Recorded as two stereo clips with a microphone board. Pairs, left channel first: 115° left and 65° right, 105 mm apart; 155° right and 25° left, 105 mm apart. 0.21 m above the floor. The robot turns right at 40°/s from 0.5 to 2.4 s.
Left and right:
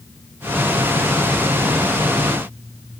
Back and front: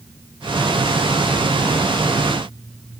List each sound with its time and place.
Only background noise.